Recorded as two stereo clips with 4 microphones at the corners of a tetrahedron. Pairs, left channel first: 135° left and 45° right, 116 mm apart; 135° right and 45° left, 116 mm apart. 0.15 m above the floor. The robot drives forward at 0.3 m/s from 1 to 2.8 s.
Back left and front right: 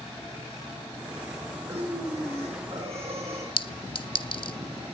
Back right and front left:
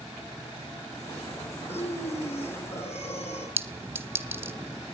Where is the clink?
110° left, 1.0 m.